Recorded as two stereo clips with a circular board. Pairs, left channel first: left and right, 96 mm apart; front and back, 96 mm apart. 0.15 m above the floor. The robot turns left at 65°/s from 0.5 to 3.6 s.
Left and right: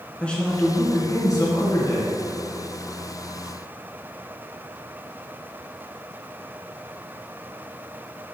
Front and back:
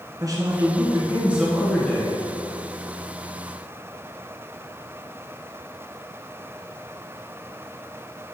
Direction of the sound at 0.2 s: 165° left.